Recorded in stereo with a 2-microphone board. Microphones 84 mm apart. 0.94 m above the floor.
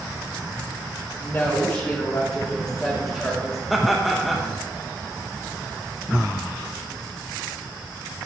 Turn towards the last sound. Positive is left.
turn(degrees=0)  # may be behind; listen again after turning